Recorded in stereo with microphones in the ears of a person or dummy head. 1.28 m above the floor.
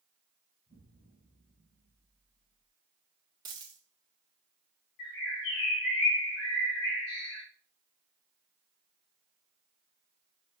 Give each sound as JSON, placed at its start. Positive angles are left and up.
{"t": 0.7, "sound": "an explosion", "side_deg": 65, "distance_m": 2.0}
{"t": 3.5, "sound": "a dropped coin", "side_deg": -25, "distance_m": 0.7}
{"t": 5.0, "sound": "a bird", "side_deg": 80, "distance_m": 1.7}